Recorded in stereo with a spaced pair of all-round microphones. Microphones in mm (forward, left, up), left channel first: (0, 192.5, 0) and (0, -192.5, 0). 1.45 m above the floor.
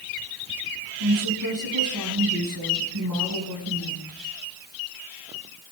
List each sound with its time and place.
1.0 s a woman speaking: 75° right (ahead or behind), 7 m